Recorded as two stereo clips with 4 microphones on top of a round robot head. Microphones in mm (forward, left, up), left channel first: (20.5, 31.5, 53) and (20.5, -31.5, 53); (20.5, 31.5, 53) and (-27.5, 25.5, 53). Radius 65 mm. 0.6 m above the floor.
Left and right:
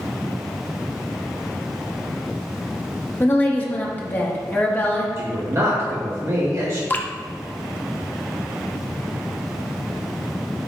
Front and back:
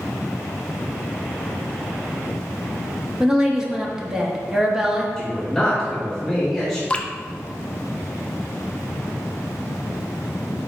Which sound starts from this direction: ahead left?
Dripping, at 6.9 s.